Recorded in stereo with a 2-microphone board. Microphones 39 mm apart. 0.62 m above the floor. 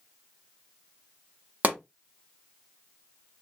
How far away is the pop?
About 1.2 m.